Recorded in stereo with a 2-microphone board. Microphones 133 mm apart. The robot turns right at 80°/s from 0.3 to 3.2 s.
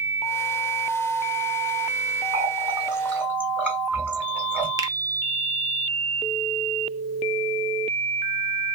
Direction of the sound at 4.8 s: 25° right (ahead or behind).